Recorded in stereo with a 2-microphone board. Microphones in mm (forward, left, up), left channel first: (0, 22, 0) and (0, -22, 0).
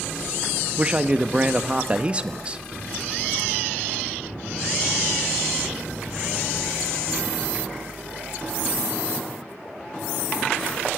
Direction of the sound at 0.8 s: 25° right (ahead or behind).